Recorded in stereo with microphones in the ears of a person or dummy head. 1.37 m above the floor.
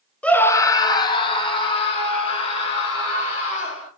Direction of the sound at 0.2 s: 5° left (ahead or behind).